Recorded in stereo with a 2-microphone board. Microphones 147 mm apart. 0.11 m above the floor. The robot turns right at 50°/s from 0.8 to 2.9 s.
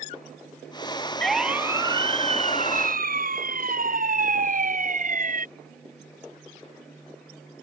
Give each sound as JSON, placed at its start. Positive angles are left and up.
{"t": 1.2, "sound": "a siren", "side_deg": 5}